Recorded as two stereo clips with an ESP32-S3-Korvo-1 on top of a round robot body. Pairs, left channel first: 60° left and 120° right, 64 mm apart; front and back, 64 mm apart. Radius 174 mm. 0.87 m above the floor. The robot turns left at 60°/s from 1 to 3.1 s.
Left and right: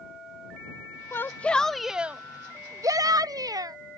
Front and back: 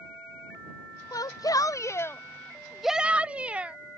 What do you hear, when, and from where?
1.1 s a shout: 10° left; by 3.8 s 110° right